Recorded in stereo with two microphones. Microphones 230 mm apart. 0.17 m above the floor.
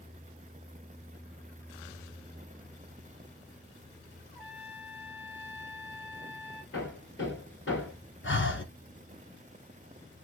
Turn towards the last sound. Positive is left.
turn(degrees=55)  # may be behind; listen again after turning